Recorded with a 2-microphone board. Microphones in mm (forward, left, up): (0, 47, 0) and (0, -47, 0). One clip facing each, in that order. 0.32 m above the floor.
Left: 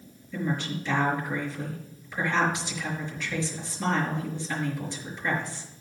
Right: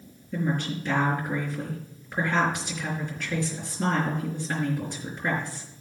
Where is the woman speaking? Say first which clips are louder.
Right 2 dB; 50° right (ahead or behind), 5.5 m.